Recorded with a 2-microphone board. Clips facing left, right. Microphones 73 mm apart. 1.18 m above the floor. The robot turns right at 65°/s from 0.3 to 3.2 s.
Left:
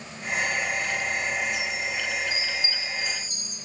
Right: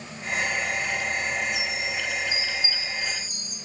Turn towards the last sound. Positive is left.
turn(degrees=0)